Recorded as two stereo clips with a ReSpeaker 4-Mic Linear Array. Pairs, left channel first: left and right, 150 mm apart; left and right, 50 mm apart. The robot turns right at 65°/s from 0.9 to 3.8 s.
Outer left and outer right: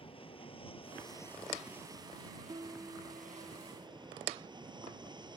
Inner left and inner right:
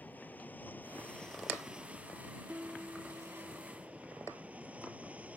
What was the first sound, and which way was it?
An aircraft, 140° left.